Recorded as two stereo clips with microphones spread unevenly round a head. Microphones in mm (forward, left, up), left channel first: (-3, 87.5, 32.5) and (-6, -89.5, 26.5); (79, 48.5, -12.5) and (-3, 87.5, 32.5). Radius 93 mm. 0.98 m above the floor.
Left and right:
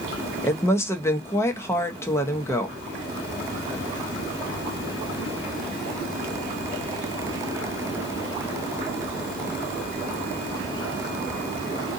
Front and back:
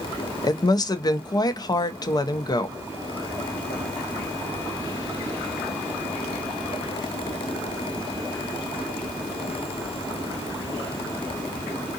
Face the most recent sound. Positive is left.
turn(degrees=10)